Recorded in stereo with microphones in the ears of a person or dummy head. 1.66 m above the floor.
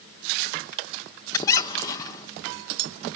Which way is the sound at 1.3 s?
20° left (ahead or behind).